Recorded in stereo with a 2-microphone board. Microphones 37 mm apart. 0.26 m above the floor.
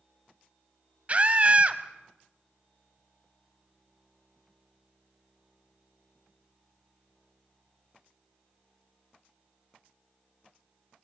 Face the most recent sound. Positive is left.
turn(degrees=-35)  # may be behind; listen again after turning